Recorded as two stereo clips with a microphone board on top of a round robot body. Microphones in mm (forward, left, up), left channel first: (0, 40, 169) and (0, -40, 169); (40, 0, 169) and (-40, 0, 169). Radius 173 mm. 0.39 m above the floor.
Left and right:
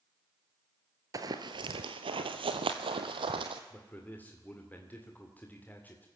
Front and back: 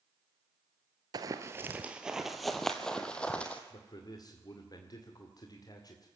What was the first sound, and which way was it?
Running footsteps, 140° right.